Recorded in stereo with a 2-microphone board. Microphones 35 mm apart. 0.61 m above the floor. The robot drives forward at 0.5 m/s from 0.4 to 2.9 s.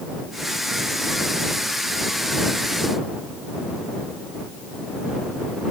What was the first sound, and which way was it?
Only background noise.